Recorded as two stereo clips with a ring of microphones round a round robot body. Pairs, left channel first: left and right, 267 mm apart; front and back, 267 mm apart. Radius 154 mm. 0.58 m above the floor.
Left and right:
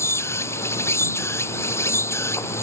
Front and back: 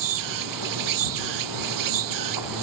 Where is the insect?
170° left.